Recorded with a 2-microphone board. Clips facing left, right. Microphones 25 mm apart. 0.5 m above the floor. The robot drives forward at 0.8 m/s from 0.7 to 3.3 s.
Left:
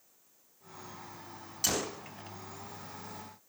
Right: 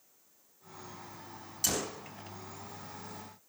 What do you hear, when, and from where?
1.6 s a gunshot: 10° left (ahead or behind), 0.6 m